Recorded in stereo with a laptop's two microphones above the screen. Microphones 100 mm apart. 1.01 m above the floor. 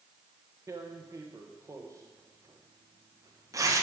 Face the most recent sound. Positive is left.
turn(degrees=-35)  # may be behind; listen again after turning